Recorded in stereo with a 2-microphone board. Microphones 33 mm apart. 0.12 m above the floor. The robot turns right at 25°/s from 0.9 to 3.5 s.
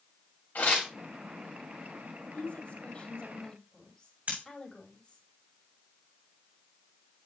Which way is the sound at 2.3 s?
50° left (ahead or behind).